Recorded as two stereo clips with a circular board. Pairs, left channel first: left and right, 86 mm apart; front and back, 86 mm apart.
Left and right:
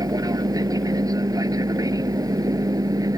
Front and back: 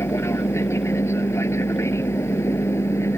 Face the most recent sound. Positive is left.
turn(degrees=-55)